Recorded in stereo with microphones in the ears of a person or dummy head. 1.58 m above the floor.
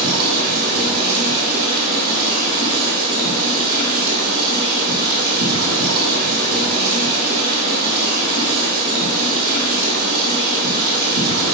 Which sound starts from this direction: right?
Running water, at 0.0 s.